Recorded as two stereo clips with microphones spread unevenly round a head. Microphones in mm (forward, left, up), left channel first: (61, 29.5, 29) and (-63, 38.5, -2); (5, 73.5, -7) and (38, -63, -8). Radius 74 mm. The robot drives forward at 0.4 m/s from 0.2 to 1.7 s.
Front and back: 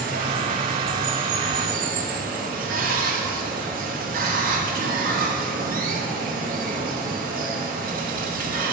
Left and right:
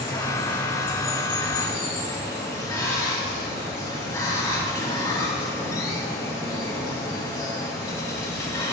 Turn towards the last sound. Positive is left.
turn(degrees=175)